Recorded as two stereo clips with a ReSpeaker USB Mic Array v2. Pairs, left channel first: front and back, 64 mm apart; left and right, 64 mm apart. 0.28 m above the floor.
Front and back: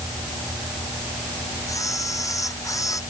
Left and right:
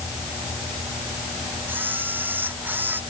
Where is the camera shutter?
30° right.